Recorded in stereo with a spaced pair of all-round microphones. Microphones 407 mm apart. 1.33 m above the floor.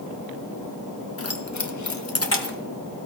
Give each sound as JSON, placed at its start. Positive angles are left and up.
{"t": 1.2, "sound": "keys jangling", "side_deg": 35, "distance_m": 0.9}